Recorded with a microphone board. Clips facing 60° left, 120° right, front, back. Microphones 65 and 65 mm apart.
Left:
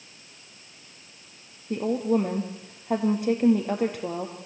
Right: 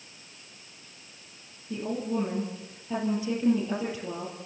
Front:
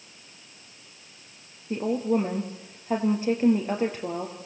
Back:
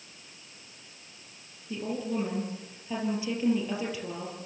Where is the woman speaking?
40° left, 4 m.